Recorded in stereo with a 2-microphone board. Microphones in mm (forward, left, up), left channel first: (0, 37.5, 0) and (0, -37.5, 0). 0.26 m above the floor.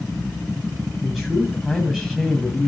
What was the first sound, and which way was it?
A man speaking, centre (ahead or behind).